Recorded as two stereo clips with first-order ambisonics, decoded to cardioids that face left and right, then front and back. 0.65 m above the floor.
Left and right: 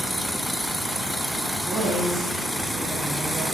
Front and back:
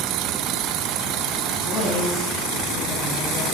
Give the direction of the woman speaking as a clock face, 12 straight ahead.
1 o'clock.